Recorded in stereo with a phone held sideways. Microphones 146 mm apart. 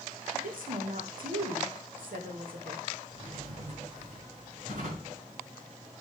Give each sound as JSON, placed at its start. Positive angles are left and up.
{"t": 0.3, "sound": "a woman speaking", "side_deg": -75, "distance_m": 2.0}
{"t": 3.1, "sound": "a drawer", "side_deg": -65, "distance_m": 5.5}